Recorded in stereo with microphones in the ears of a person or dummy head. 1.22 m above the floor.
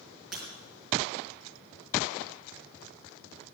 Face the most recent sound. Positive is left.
turn(degrees=-5)  # may be behind; listen again after turning